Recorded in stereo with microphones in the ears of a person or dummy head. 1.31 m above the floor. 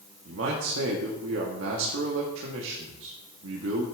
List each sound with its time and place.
0.2 s a man speaking: 70° right (ahead or behind), 1.0 m